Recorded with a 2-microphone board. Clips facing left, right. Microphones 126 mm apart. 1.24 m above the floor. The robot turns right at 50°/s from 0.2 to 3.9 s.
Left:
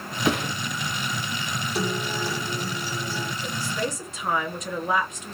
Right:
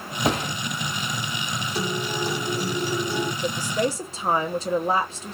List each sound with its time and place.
0.2 s a thud: 40° right (ahead or behind), 1.6 m; by 0.6 s 30° right (ahead or behind), 1.6 m
1.8 s a guitar: 175° left, 0.8 m; by 3.3 s 105° right, 0.8 m
3.4 s a woman speaking: 55° right (ahead or behind), 0.6 m; by 5.3 s 30° right (ahead or behind), 0.6 m